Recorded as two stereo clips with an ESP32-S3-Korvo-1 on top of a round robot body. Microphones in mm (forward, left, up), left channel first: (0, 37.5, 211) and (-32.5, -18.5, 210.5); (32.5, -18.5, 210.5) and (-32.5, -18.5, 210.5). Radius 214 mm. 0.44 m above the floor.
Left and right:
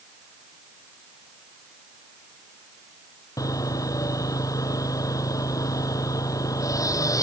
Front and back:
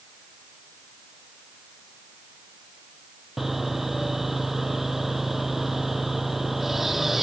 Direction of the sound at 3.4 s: 95° left.